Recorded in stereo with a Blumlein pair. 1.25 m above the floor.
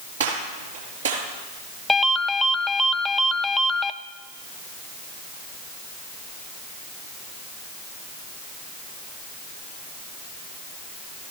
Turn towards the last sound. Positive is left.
turn(degrees=5)